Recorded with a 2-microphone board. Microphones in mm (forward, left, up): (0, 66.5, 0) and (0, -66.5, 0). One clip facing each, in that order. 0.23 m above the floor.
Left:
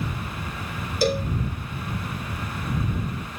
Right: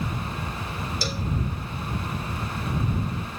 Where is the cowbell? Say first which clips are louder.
Left 13 dB; 55° left (ahead or behind).